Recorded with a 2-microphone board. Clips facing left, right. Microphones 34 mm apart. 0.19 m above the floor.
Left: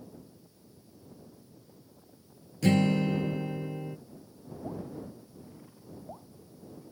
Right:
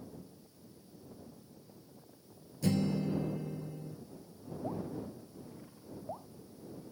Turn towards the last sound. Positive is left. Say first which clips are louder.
# even
turn(degrees=-15)  # may be behind; listen again after turning